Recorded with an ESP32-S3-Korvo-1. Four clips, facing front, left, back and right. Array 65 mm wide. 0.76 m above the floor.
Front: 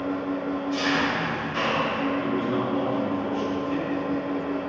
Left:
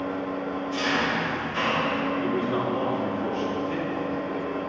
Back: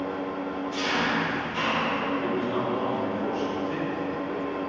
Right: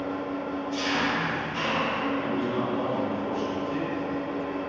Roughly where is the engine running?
Ahead left.